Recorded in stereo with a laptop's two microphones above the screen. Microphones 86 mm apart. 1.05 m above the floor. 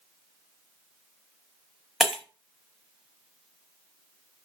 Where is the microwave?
No microwave in this recording.